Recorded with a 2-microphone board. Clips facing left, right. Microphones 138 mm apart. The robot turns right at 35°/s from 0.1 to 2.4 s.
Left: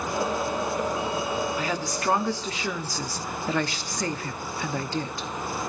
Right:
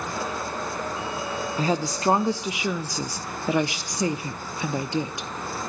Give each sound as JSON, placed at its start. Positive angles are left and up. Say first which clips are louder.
{"t": 1.6, "sound": "a woman speaking", "louder": "right 4 dB", "side_deg": -35, "distance_m": 0.6}